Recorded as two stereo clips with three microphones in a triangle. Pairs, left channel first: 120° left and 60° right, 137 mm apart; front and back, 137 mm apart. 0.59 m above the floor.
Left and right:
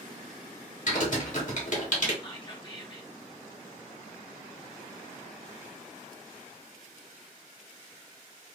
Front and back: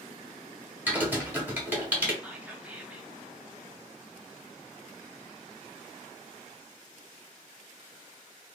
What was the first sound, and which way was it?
Typing on a keyboard, 105° left.